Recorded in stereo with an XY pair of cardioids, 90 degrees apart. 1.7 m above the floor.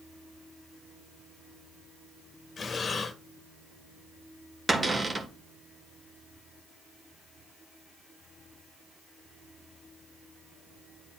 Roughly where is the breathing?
Ahead left.